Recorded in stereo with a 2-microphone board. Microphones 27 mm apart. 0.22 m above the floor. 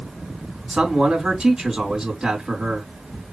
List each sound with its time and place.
0.7 s a man speaking: 25° right (ahead or behind), 2.5 m